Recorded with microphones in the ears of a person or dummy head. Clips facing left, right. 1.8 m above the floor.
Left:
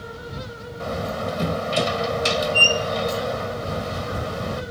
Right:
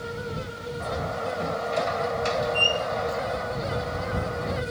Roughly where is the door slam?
Left.